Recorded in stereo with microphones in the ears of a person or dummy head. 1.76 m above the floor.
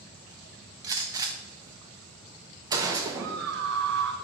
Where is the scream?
65° right (ahead or behind), 1.1 m.